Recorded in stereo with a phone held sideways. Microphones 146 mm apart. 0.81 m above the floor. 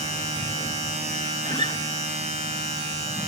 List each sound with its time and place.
0.0 s a machine running: 50° right (ahead or behind), 6 m
1.4 s a guitar: 30° left (ahead or behind), 0.8 m